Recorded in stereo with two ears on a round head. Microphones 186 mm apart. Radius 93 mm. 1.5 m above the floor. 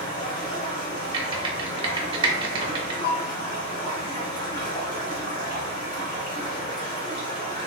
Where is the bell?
65° left (ahead or behind), 1.9 m.